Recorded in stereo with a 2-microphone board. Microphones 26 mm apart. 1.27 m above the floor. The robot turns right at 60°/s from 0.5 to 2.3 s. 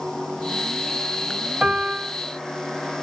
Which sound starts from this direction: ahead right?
A piano, at 1.6 s.